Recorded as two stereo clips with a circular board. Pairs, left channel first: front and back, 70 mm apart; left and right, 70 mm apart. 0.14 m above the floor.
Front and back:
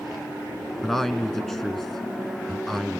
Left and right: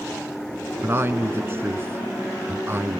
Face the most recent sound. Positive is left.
turn(degrees=-85)